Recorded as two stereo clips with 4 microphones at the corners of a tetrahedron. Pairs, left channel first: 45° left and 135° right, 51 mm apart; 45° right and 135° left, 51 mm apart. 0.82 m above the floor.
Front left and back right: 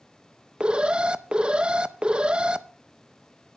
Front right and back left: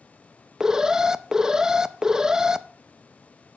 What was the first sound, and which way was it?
An alarm, 170° right.